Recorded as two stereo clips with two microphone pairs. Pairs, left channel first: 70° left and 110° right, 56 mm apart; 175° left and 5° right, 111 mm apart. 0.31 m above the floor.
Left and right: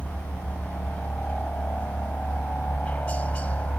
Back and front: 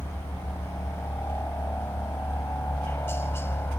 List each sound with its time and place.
0.0 s a helicopter: 115° left